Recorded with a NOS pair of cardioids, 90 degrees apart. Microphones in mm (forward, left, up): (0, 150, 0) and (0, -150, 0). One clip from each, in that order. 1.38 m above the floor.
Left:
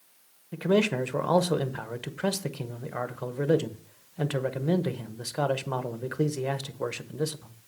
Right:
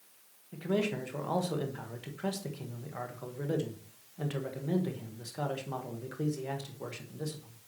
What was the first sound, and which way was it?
A man speaking, 50° left.